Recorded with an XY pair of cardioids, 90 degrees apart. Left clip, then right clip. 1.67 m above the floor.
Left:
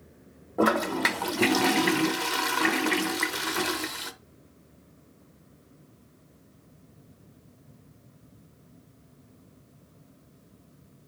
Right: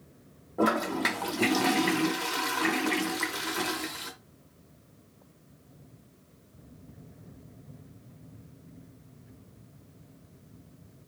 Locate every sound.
0.6 s a toilet flushing: 40° left, 0.7 m